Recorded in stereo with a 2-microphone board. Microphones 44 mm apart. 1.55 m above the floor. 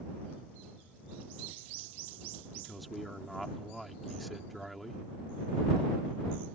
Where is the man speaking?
Centre (ahead or behind).